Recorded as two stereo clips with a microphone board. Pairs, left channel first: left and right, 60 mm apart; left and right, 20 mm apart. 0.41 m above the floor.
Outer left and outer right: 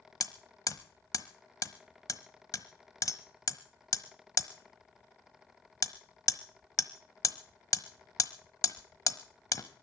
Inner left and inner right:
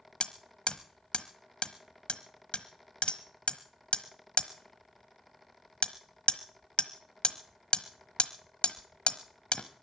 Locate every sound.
0.2 s hammering: 70° left (ahead or behind), 1.1 m